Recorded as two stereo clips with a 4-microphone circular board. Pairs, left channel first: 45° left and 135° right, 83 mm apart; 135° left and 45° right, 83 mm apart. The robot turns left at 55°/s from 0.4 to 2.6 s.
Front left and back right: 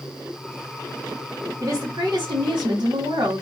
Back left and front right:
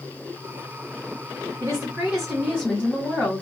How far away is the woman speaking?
About 1.8 m.